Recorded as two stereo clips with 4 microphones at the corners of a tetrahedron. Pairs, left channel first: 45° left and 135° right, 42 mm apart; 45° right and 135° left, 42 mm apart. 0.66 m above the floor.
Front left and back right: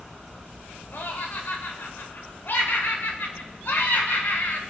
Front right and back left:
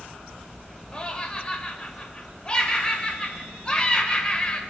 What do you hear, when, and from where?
0.9 s laughter: 20° left, 2.5 m